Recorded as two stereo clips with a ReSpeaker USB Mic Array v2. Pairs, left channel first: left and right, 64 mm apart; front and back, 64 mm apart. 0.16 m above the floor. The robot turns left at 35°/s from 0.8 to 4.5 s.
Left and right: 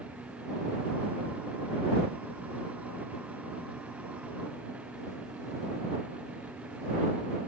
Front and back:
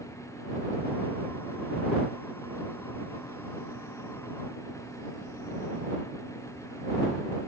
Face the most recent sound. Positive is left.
No sound to turn to.